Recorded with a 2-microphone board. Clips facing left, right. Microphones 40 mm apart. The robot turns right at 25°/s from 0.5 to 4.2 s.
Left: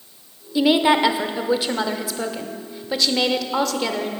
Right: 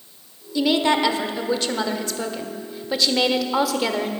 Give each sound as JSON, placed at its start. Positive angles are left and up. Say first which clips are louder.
{"t": 0.6, "sound": "a woman speaking", "louder": "left 3 dB", "side_deg": 20, "distance_m": 0.8}